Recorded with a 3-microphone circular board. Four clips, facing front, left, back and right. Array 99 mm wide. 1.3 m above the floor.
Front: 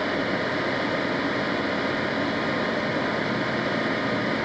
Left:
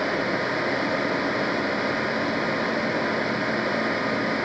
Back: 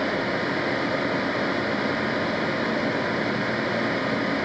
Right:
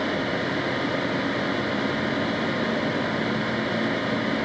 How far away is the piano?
No piano in this recording.